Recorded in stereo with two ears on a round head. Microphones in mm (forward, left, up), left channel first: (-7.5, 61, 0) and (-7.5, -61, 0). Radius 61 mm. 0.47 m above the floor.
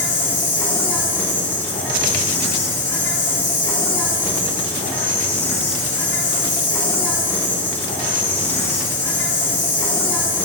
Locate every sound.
0.0 s an insect: 15° left (ahead or behind), 2.5 m